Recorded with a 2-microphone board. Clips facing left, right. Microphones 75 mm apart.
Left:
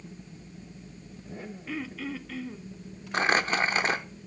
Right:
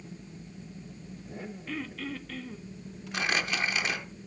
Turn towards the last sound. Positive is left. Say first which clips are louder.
# left 5 dB
turn(degrees=40)  # may be behind; listen again after turning